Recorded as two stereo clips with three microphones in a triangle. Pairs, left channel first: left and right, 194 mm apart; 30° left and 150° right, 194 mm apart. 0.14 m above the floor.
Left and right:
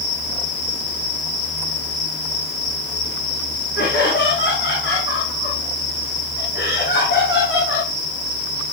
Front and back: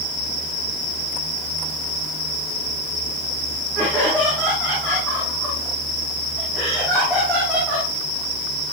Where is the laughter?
115° left, 9.5 m; by 7.9 s 125° left, 7 m.